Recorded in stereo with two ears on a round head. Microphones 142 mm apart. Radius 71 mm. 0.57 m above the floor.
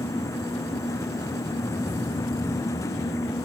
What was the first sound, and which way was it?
Only background noise.